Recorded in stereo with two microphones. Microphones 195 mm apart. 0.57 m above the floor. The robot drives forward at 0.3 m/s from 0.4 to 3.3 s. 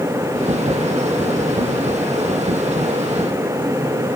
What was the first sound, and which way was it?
Only background noise.